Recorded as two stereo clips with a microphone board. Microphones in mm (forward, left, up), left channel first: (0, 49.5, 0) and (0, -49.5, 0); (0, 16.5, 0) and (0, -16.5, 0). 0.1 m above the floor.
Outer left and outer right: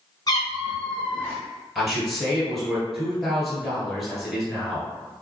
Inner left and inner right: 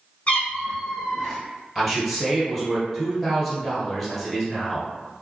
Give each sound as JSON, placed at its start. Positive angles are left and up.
{"t": 0.3, "sound": "a cat meowing", "side_deg": 40, "distance_m": 0.8}
{"t": 1.8, "sound": "a man speaking", "side_deg": 0, "distance_m": 1.6}